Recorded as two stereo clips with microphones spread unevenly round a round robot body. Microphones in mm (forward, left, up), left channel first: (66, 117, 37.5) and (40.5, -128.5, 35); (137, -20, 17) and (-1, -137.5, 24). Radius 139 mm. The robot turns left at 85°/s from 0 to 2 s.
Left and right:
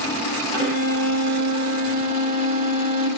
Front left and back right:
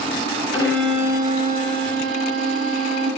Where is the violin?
25° right, 1.6 m; by 3.1 s 150° right, 1.6 m.